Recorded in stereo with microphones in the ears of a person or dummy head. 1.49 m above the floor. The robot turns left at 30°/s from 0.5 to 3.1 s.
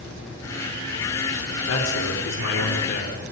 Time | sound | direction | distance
1.7 | a man speaking | 95° left | 5 m